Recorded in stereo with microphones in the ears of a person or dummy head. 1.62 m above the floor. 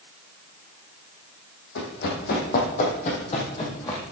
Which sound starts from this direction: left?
Running footsteps, at 1.8 s.